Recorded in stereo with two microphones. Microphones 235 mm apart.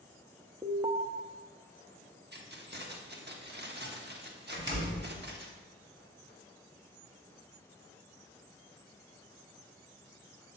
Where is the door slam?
55° right (ahead or behind), 2 m.